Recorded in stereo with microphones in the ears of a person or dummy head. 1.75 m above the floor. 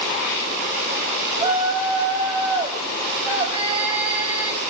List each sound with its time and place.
1.3 s a shout: 10° right (ahead or behind), 9.5 m